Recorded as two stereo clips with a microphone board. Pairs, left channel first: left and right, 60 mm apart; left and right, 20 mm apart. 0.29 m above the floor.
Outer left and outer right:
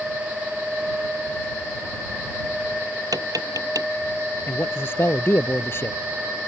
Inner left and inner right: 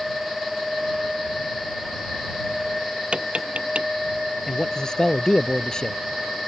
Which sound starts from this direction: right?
Tapping, at 3.1 s.